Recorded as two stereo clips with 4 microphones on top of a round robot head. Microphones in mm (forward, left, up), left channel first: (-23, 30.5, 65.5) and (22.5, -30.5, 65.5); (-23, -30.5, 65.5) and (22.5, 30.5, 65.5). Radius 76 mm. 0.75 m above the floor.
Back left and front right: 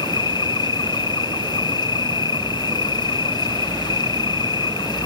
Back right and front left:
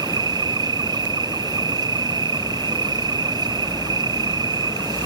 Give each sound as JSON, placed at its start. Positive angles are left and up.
{"t": 0.0, "sound": "an insect", "azimuth_deg": 95}